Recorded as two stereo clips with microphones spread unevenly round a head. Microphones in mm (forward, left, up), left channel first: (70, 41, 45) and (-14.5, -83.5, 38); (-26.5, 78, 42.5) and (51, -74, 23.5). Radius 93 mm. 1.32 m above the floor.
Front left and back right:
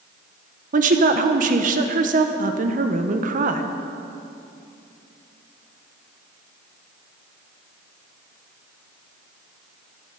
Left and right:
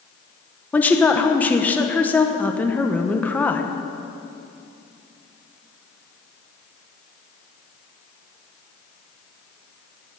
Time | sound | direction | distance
0.7 | a woman speaking | 160° right | 1.1 m